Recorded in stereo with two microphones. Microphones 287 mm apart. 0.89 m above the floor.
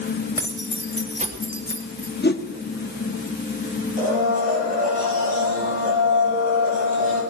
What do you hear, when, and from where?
0.4 s keys jangling: 10° right (ahead or behind), 3 m; by 2.1 s 50° right (ahead or behind), 1.9 m
2.2 s a whoosh: 35° left (ahead or behind), 1.0 m
4.0 s a blender: 25° right (ahead or behind), 7 m